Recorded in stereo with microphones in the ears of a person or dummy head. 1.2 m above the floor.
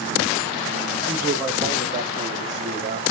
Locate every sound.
1.1 s a man speaking: 15° right (ahead or behind), 1.8 m; by 3.0 s 50° right (ahead or behind), 3 m